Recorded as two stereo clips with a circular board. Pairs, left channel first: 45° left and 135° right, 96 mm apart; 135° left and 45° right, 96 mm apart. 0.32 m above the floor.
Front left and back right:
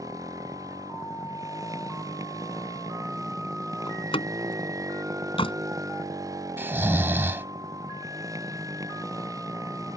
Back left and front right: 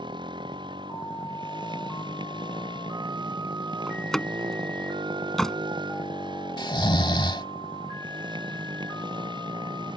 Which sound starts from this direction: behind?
Snoring, at 6.6 s.